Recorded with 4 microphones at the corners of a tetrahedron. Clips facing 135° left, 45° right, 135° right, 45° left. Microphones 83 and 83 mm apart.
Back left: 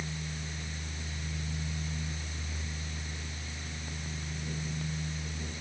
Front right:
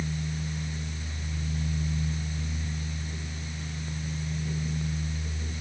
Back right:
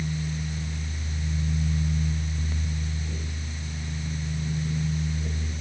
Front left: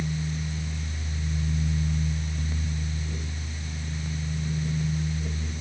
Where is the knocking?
No knocking in this recording.